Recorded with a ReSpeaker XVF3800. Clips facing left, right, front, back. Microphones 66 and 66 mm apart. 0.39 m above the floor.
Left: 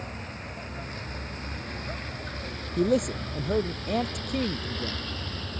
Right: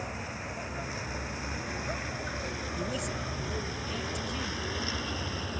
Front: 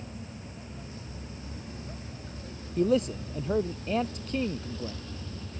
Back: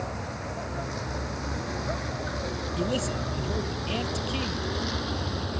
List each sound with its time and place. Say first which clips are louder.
0.0 s a vehicle: right 1 dB, back 9 dB; 175° right; by 5.6 s 170° right
2.8 s a man speaking: left 13 dB, front 5 dB; 55° left